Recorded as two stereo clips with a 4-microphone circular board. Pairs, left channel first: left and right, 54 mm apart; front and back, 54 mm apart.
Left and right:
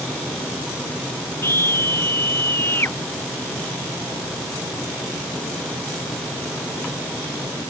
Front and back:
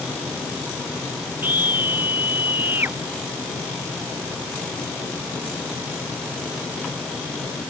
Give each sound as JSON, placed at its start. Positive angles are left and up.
{"t": 1.4, "sound": "a scream", "azimuth_deg": 130}